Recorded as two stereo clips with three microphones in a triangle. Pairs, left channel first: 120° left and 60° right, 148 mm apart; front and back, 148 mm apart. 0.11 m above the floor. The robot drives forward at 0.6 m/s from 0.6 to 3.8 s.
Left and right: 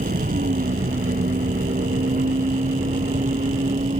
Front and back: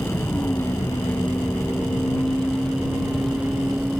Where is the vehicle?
75° right; by 4.0 s 95° right.